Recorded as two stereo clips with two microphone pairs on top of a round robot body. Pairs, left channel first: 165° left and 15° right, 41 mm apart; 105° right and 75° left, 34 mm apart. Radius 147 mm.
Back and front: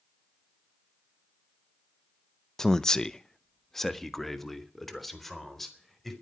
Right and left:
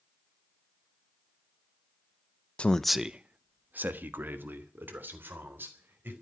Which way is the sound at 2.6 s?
140° right.